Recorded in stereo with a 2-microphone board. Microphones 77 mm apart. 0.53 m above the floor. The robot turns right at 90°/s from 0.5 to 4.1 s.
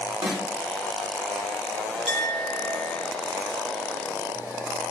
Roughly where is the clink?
Behind.